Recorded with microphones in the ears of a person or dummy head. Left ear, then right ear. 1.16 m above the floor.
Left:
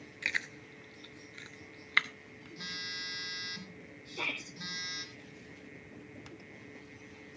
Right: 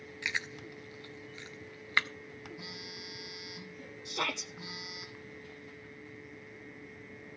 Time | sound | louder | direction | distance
0.2 | chewing | even | centre (ahead or behind) | 0.6 m
2.6 | a phone buzzing | left 6 dB | 65° left (ahead or behind) | 3.5 m
4.0 | a shout | right 3 dB | 55° right (ahead or behind) | 0.9 m